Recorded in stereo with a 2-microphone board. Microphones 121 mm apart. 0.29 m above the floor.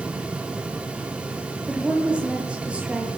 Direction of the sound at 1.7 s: 10° right (ahead or behind).